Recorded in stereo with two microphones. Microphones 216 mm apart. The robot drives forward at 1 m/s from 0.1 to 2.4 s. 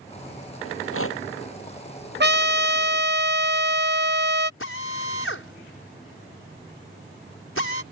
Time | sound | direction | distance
0.7 | a rattle | 80° left | ?
2.2 | a trumpet | 55° right (ahead or behind) | ?
4.6 | a drill | 75° left (ahead or behind) | ?